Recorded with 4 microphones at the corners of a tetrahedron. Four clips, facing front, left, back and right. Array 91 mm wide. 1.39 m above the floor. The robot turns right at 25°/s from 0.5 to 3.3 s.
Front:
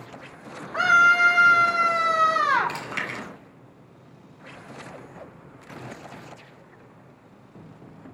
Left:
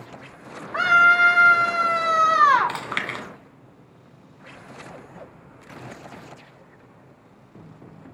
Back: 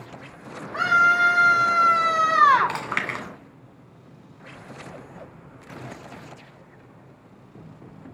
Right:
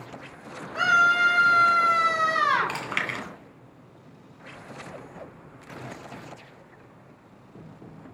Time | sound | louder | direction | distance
0.7 | a scream | left 4 dB, front 1 dB | 95° left | 5 m
2.7 | chewing | left 1 dB, back 4 dB | 155° left | 1.8 m